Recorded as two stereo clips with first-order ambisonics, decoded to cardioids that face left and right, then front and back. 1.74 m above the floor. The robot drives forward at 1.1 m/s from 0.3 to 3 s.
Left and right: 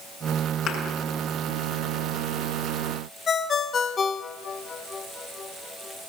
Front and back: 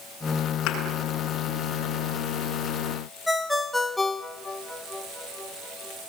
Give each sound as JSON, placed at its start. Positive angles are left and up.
{"t": 0.7, "sound": "a thud", "azimuth_deg": 35, "distance_m": 6.5}
{"t": 3.3, "sound": "a ringtone", "azimuth_deg": 75, "distance_m": 1.0}